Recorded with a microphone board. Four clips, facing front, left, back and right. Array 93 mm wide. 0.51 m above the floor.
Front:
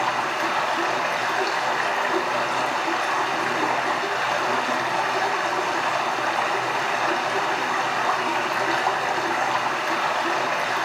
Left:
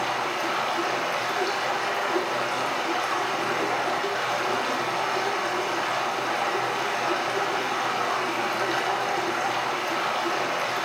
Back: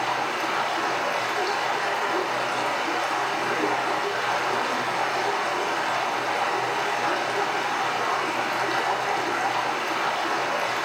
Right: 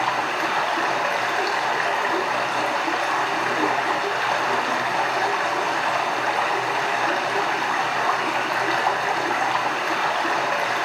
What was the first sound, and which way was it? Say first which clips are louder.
Running water: right 4 dB, front 2 dB; 60° right.